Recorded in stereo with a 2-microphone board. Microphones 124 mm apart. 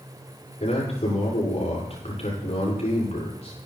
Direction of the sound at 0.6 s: 60° left (ahead or behind).